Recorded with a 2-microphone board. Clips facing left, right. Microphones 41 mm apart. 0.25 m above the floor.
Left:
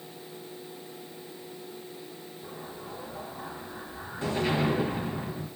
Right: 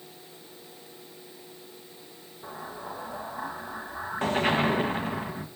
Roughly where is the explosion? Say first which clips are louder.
Right 5 dB; right.